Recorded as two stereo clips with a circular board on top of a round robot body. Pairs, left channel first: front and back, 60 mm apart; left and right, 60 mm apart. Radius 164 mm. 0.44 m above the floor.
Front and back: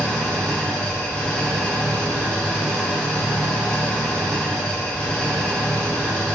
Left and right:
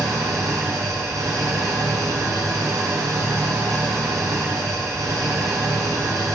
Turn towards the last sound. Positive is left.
turn(degrees=-75)